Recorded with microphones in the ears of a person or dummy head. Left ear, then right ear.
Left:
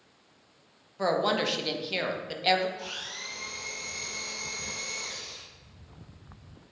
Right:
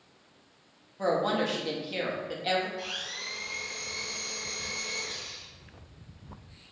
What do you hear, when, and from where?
1.0 s a woman speaking: 25° left (ahead or behind), 0.6 m
2.8 s a blender: 10° left (ahead or behind), 1.1 m